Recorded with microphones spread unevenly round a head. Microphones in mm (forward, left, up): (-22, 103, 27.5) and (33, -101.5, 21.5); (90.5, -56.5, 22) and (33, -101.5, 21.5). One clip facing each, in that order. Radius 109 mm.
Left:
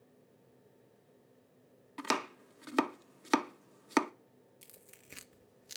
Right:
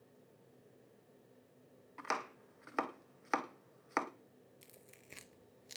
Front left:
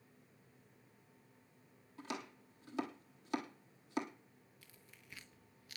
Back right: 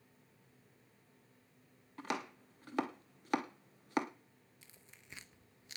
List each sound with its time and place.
2.0 s chopping: 150° left, 0.7 m
4.6 s tearing paper: 170° left, 0.5 m